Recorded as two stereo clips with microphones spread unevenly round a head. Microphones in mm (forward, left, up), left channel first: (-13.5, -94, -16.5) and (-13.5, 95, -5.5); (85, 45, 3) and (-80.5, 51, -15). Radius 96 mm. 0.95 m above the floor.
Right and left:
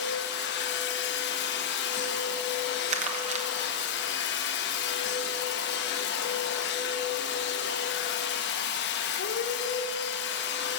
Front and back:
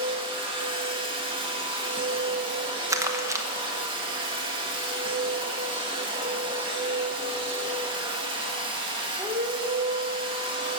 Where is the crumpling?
125° left, 1.1 m.